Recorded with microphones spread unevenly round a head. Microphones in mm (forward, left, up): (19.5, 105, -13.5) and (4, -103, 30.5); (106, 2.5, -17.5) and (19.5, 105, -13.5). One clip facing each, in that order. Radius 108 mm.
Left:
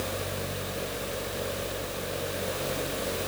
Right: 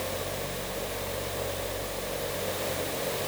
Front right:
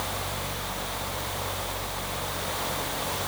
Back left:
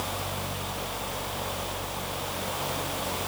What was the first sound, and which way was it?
Only background noise.